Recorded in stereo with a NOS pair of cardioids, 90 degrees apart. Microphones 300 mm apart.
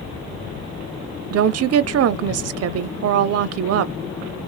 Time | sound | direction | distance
1.3 | a woman speaking | 55° right | 0.6 m